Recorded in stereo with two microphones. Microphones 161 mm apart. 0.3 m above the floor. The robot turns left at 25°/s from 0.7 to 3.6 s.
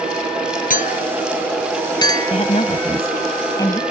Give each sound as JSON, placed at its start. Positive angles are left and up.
{"t": 0.7, "sound": "a clink", "side_deg": 60}
{"t": 2.3, "sound": "a woman speaking", "azimuth_deg": 65}